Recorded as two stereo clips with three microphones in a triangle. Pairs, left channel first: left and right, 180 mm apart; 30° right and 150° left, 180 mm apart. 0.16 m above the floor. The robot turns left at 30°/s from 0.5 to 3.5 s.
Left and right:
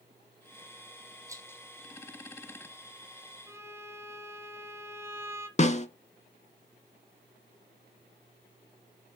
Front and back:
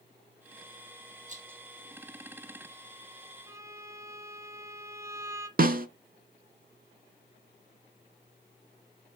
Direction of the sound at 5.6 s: 130° left.